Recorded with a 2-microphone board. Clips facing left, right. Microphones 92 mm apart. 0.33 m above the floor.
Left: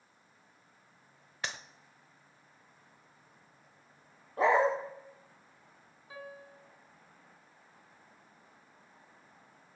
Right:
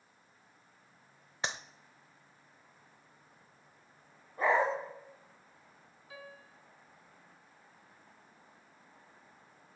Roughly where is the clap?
Right.